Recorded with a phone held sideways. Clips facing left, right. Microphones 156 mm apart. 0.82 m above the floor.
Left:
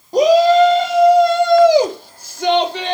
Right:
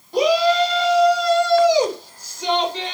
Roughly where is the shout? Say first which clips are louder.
Left 6 dB; left.